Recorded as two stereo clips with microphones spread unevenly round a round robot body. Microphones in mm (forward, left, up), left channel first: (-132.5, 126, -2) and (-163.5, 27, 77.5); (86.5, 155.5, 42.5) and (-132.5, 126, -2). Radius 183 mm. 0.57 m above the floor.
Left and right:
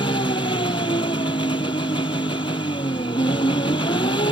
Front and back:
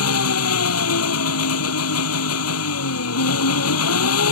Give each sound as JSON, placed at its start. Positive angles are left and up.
{"t": 0.0, "sound": "an engine running", "azimuth_deg": 10}